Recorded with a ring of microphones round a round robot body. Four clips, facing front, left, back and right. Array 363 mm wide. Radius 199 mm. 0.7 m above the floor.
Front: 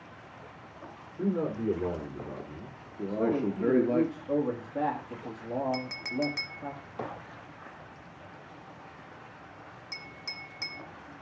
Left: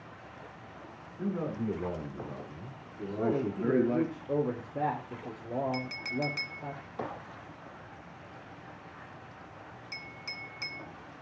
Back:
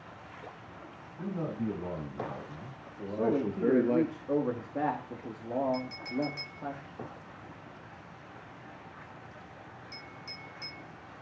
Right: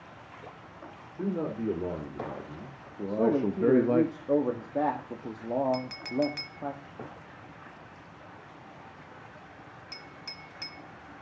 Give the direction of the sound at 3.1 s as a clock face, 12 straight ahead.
4 o'clock.